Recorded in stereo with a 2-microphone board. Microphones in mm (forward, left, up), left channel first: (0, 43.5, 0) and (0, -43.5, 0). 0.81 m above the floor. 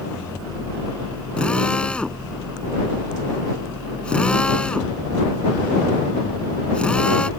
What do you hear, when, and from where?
1.4 s a drill: 10° left (ahead or behind)